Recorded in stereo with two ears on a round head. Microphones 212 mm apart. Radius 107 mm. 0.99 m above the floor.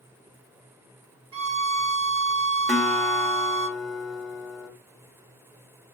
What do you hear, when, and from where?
1.3 s a violin: 65° right (ahead or behind), 1.3 m
2.7 s a guitar: centre (ahead or behind), 0.8 m